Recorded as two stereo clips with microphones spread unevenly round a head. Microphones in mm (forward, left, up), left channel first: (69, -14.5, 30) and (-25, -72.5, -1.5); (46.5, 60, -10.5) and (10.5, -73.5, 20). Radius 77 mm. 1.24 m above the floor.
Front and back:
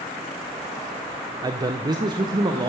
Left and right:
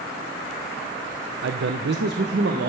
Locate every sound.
1.4 s a man speaking: 95° right, 0.6 m; by 2.7 s 100° right, 1.2 m